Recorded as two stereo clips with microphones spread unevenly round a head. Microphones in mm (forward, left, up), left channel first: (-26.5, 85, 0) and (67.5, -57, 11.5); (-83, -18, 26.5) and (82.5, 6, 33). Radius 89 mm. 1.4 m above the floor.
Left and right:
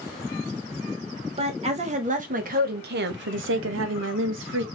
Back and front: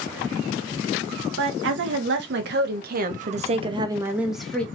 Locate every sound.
1.4 s a woman speaking: straight ahead, 1.7 m; by 4.7 s 90° right, 1.0 m